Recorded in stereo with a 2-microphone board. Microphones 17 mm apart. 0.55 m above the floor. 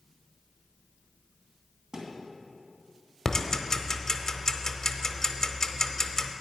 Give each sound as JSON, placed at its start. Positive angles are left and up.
{"t": 1.9, "sound": "a thud", "side_deg": -55, "distance_m": 2.0}
{"t": 3.2, "sound": "ticking", "side_deg": 30, "distance_m": 0.7}